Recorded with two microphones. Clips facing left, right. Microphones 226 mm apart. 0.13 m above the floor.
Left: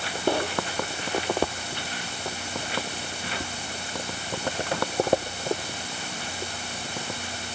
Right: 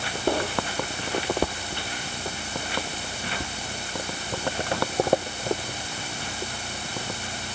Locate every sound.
Only background noise.